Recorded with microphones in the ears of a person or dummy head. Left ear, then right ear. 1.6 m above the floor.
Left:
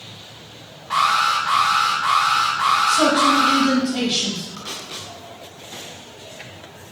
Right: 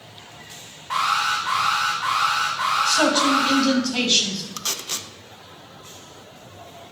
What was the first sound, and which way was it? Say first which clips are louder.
An alarm: left 4 dB; 15° right (ahead or behind).